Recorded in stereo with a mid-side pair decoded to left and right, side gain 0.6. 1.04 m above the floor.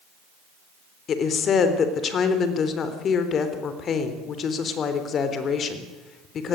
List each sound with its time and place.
1.1 s a woman speaking: 45° left, 3.5 m